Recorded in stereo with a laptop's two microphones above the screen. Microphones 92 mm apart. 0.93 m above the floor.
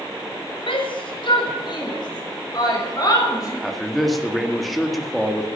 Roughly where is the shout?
Left.